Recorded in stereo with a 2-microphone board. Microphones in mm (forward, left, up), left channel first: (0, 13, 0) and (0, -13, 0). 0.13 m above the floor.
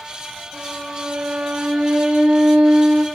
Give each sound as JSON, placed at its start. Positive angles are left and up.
{"t": 0.5, "sound": "a violin", "side_deg": -60, "distance_m": 5.5}